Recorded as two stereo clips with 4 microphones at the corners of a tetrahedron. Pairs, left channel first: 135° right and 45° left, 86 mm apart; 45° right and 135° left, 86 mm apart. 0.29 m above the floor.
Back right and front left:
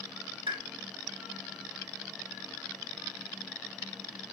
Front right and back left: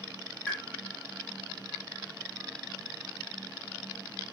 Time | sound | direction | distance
0.5 | a pop | 30° left | 5.5 m